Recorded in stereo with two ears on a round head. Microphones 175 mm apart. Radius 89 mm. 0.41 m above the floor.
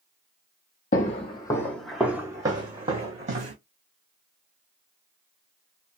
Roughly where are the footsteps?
Left.